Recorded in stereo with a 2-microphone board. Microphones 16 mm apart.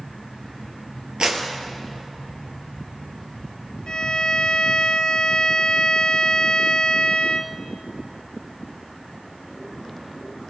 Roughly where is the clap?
Right.